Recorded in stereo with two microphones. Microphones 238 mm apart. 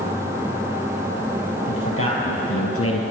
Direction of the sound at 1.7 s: 60° left (ahead or behind).